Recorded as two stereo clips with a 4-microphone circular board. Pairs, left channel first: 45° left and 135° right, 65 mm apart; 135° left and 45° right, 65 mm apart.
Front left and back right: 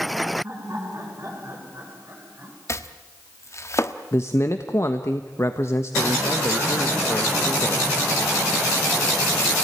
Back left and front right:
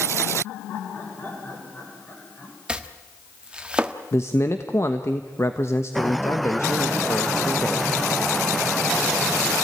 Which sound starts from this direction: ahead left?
Chopping, at 2.7 s.